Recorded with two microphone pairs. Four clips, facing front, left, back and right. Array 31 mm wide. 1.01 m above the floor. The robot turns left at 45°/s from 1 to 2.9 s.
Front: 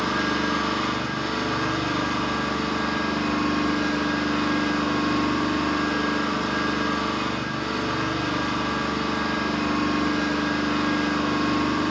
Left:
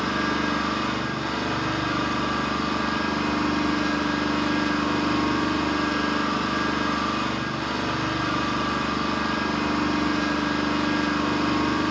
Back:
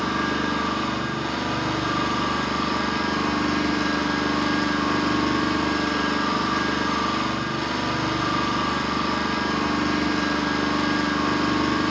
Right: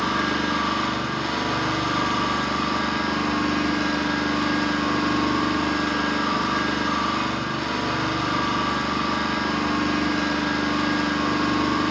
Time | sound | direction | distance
0.0 | an engine running | 70° right | 6.5 m